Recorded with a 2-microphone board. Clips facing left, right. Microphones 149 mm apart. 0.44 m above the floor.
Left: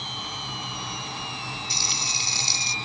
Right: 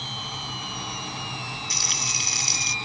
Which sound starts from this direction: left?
Frying, at 1.7 s.